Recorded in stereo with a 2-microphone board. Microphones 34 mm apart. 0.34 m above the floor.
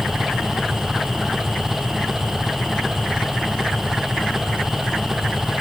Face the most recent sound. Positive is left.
turn(degrees=-10)  # may be behind; listen again after turning